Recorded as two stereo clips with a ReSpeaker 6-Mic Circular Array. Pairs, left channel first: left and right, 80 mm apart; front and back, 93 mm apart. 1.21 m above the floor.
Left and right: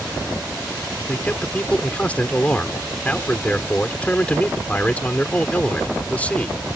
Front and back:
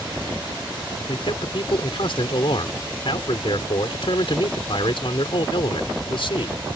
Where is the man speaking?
20° left.